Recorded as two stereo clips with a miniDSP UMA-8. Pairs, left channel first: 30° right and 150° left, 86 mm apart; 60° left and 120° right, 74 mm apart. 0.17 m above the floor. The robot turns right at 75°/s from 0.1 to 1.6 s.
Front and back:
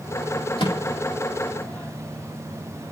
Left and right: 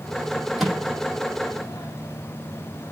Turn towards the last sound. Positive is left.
turn(degrees=40)